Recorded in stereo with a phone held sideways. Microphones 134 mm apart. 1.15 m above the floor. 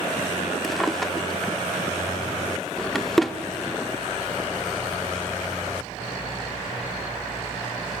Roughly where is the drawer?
Centre.